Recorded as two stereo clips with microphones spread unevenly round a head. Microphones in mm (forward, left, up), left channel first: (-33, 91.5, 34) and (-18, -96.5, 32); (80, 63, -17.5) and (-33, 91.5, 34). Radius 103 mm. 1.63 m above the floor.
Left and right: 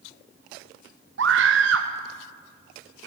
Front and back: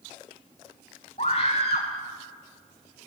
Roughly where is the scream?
Right.